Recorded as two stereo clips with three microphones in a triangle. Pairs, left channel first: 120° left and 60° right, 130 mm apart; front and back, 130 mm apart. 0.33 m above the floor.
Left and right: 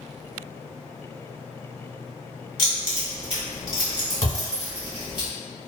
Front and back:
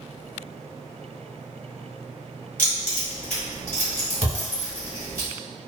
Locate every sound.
2.6 s keys jangling: 75° left, 1.6 m
4.2 s a thud: 150° left, 1.0 m